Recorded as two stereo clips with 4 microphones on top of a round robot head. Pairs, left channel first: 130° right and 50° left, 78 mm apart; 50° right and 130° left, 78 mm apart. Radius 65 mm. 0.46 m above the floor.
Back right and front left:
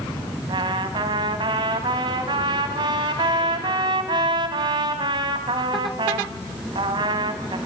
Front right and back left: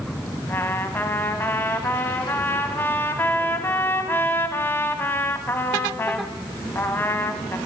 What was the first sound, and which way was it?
A trumpet, 15° left.